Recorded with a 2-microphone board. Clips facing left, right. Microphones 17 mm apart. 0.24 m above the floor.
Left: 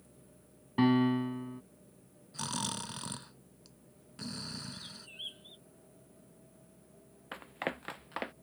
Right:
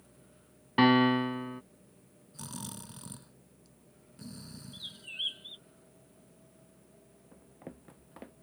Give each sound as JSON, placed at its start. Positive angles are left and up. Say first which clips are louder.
{"t": 0.8, "sound": "a piano", "louder": "right 4 dB", "side_deg": -40}
{"t": 2.3, "sound": "snoring", "louder": "left 7 dB", "side_deg": 40}
{"t": 4.7, "sound": "a bird", "louder": "right 6 dB", "side_deg": -35}
{"t": 7.3, "sound": "running footsteps", "louder": "left 12 dB", "side_deg": 85}